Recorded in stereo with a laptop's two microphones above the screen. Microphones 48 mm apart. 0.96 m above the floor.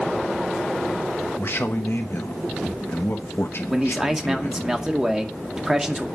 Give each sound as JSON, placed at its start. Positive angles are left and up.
{"t": 1.4, "sound": "a man speaking", "side_deg": 60, "distance_m": 1.1}
{"t": 3.7, "sound": "a man speaking", "side_deg": -10, "distance_m": 2.0}